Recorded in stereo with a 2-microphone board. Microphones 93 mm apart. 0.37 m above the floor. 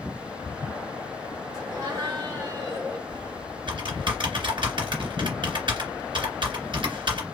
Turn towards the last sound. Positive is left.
turn(degrees=-60)  # may be behind; listen again after turning